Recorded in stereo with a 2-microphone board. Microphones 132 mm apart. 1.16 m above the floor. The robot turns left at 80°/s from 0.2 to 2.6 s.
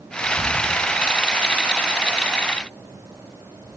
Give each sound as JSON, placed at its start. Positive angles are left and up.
{"t": 0.2, "sound": "whispering", "side_deg": 55, "distance_m": 2.5}